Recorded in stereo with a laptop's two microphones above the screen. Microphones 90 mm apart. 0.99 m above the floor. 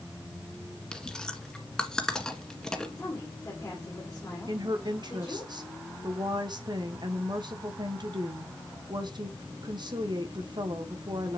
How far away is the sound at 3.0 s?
About 2.5 m.